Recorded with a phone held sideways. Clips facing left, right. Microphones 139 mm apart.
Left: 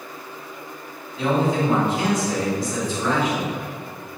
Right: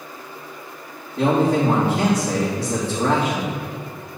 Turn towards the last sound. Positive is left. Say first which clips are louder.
# right 3 dB
turn(degrees=-70)  # may be behind; listen again after turning